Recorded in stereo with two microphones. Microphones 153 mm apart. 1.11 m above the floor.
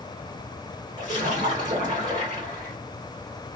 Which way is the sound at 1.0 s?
55° right (ahead or behind).